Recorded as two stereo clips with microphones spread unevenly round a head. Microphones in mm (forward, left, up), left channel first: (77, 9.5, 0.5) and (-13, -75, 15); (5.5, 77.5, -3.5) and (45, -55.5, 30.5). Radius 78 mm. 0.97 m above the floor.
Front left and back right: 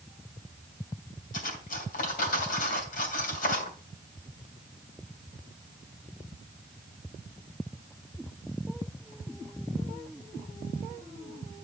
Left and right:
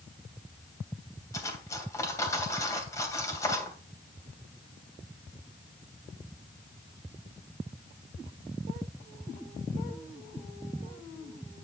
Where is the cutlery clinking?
35° left, 3 m.